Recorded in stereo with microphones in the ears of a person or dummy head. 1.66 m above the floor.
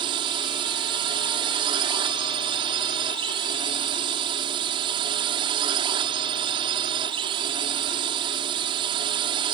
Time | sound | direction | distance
0.0 | a drone | 30° right (ahead or behind) | ?